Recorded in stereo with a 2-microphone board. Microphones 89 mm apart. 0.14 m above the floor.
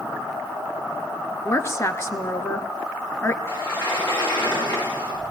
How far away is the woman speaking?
About 1.7 m.